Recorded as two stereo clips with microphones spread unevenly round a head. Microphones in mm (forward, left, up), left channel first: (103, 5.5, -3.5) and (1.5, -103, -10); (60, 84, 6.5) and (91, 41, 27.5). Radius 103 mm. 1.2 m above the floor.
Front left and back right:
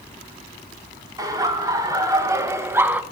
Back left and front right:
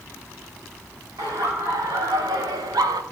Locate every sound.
1.2 s laughter: 65° right, 3.5 m; by 3.0 s 55° right, 0.8 m